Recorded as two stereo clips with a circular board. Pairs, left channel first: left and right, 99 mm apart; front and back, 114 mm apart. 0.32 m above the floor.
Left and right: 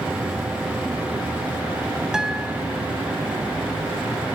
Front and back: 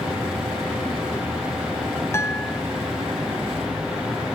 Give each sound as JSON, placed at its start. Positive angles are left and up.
{"t": 2.1, "sound": "a guitar", "azimuth_deg": -15, "distance_m": 1.1}